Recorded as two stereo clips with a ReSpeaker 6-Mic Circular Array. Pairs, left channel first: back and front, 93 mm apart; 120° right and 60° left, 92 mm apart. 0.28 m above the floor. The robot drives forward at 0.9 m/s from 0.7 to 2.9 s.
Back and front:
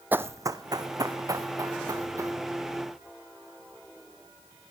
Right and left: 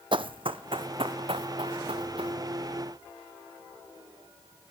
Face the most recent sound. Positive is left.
turn(degrees=70)